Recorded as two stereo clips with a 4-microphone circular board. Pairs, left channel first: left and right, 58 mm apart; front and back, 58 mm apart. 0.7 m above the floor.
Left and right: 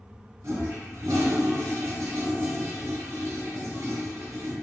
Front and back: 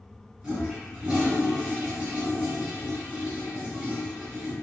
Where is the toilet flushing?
110° right, 1.2 m.